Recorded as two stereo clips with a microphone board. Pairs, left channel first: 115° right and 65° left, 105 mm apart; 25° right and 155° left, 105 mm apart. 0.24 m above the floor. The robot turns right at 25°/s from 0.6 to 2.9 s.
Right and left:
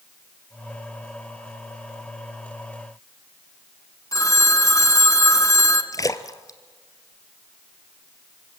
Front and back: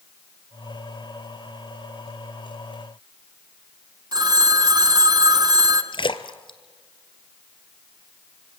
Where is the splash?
60° right, 1.0 m.